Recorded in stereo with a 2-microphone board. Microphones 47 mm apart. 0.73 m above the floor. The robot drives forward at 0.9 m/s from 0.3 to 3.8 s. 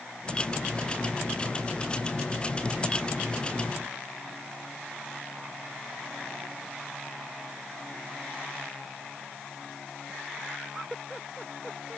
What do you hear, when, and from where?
Only background noise.